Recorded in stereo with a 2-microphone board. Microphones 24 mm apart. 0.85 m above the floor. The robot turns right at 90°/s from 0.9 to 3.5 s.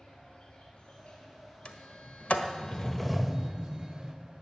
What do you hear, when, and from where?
0.0 s an insect: 40° left, 5.5 m; by 4.4 s 85° right, 5.5 m
1.6 s a sliding door: 45° left (ahead or behind), 1.3 m; by 4.1 s 35° right (ahead or behind), 1.3 m